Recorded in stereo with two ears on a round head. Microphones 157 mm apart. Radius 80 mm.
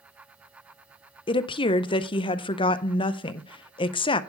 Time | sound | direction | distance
1.3 | a woman speaking | 30° left (ahead or behind) | 0.6 m